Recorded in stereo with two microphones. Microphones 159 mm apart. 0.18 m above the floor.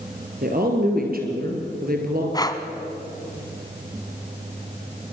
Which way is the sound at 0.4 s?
60° right (ahead or behind).